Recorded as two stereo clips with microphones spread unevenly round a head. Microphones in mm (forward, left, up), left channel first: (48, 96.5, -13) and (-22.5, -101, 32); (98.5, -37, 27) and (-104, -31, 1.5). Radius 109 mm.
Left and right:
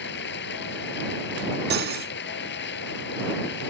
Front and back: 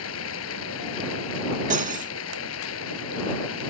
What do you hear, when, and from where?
0.0 s running water: 30° left
1.7 s cutlery clinking: 130° right